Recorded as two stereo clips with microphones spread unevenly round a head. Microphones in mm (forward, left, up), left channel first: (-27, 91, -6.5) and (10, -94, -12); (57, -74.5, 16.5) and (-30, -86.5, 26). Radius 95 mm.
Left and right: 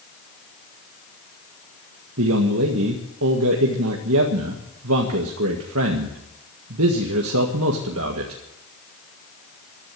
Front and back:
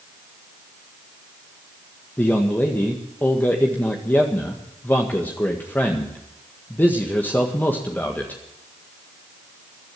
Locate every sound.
2.2 s a man speaking: 65° right, 1.8 m